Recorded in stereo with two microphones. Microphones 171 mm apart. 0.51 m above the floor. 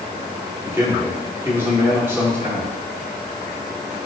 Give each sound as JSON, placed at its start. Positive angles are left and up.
{"t": 0.7, "sound": "a man speaking", "side_deg": -15, "distance_m": 1.0}